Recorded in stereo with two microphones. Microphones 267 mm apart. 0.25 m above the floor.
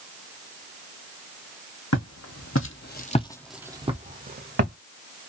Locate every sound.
1.9 s footsteps: 70° left (ahead or behind), 0.9 m; by 4.8 s 45° right (ahead or behind), 0.9 m